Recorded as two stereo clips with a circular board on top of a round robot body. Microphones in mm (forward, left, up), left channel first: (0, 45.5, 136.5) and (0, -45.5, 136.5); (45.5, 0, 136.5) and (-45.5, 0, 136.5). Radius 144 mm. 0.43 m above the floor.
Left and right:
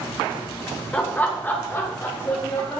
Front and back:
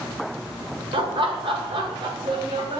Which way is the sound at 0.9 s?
165° left.